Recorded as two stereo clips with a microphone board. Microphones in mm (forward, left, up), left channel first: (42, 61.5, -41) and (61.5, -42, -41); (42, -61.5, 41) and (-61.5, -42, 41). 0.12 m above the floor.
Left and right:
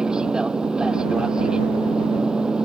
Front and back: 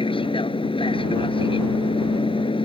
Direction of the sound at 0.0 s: Straight ahead.